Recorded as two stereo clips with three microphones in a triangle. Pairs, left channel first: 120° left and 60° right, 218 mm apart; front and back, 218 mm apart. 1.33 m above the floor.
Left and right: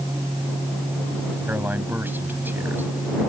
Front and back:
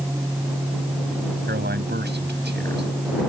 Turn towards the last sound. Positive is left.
turn(degrees=-140)